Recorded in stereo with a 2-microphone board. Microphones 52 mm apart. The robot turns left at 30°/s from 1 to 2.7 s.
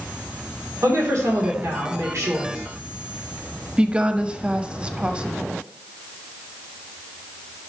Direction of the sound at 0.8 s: 80° right.